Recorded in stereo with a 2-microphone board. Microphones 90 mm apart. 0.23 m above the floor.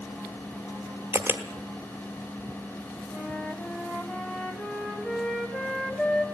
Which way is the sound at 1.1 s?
25° right (ahead or behind).